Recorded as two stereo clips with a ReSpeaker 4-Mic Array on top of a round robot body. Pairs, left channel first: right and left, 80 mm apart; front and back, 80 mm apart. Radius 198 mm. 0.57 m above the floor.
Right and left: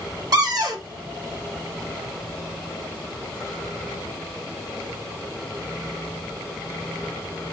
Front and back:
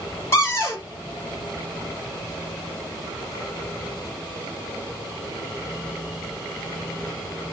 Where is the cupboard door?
50° left, 1.2 m.